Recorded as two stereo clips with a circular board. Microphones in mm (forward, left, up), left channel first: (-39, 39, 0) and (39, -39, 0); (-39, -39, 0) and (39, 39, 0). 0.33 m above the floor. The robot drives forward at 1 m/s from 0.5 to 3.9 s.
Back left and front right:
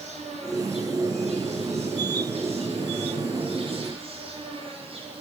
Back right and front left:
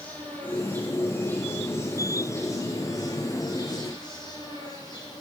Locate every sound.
0.0 s an insect: 60° right, 9 m; by 5.2 s 80° right, 8 m